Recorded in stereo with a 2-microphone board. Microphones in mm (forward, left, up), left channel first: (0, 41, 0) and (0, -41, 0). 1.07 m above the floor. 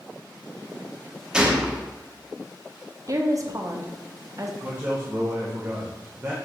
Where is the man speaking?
30° right (ahead or behind), 0.7 m.